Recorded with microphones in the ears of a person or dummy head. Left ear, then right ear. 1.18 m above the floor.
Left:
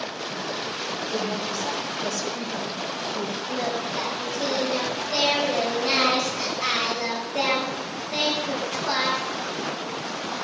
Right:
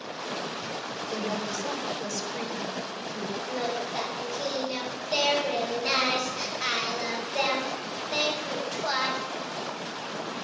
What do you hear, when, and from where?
1.1 s a woman speaking: 70° right (ahead or behind), 4.5 m; by 3.4 s 60° right (ahead or behind), 5.5 m
3.5 s singing: 55° right (ahead or behind), 5 m